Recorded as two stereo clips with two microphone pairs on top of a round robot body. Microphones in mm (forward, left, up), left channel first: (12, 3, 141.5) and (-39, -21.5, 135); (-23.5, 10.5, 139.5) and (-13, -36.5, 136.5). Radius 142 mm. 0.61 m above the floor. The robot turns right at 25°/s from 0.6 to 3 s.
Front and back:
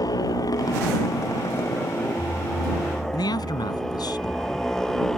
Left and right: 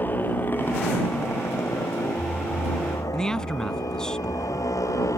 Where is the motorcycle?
50° left; by 5.2 s 110° left.